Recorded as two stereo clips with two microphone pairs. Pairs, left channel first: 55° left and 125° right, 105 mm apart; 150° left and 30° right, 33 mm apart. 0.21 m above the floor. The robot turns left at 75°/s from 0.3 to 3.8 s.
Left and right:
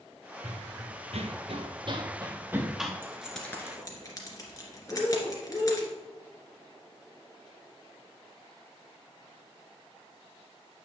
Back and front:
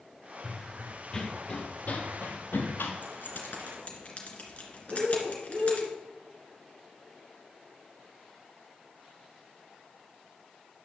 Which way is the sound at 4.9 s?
15° right.